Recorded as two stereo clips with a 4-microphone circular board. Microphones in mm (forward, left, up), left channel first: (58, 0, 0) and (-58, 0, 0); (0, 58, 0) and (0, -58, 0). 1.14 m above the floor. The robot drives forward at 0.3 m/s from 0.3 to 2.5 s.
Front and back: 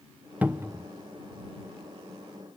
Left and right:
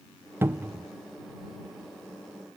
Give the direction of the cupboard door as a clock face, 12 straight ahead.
4 o'clock.